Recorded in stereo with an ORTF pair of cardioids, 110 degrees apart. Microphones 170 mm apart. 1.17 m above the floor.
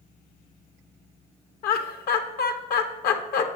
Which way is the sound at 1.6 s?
65° left.